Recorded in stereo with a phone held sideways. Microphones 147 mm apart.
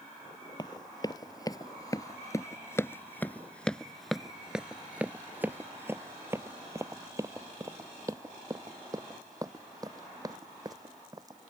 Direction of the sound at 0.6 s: 30° left (ahead or behind).